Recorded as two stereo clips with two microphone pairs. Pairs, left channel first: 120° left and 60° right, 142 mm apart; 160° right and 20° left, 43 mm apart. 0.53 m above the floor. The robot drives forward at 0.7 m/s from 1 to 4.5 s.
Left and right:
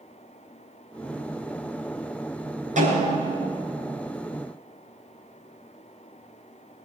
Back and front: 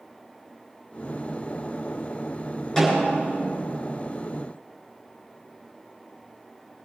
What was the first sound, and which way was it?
A snare drum, 85° right.